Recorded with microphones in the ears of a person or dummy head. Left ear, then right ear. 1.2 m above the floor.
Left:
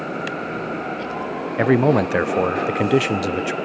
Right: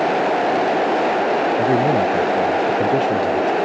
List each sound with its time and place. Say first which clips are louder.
1.6 s a man speaking: right 1 dB; 35° left (ahead or behind)